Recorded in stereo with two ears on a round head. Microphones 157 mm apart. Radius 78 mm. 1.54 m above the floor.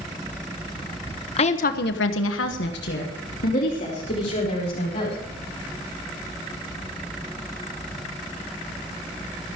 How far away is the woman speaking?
About 1.4 m.